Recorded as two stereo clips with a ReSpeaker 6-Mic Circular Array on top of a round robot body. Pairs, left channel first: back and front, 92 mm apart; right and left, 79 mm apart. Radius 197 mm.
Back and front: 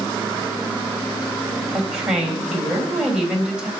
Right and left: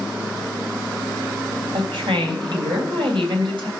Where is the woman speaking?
80° left, 3.5 m.